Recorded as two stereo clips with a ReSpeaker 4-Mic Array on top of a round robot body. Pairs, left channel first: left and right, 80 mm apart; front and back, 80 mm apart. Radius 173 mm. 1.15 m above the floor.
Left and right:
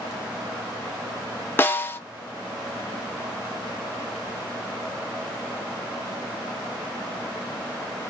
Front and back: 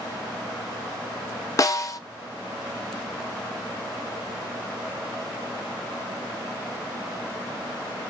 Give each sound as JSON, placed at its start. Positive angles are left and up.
{"t": 1.6, "sound": "a snare drum", "azimuth_deg": 30, "distance_m": 0.7}